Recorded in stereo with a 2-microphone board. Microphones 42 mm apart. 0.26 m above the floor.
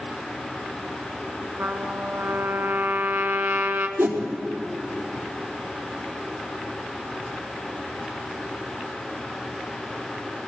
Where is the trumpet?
60° right (ahead or behind), 1.5 m.